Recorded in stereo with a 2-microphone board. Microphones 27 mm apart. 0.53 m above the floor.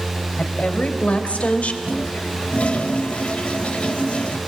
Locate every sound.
0.4 s a woman speaking: 60° left (ahead or behind), 3.5 m
1.8 s a toilet flushing: 50° left (ahead or behind), 1.2 m